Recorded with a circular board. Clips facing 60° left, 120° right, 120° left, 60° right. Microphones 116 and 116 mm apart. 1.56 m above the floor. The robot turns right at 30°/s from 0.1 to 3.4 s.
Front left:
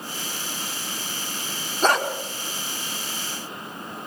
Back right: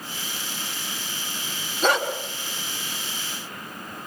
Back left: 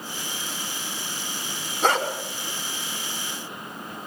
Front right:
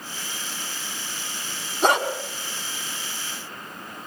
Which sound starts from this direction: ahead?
A dog barking, at 1.8 s.